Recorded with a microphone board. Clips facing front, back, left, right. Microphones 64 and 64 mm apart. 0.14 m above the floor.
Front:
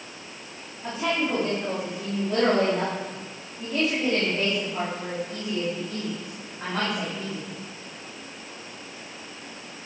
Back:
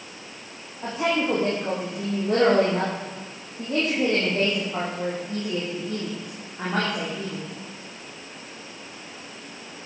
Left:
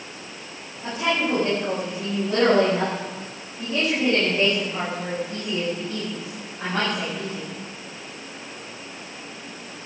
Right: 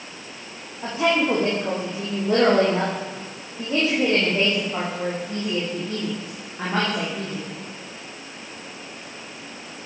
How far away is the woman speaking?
About 7 m.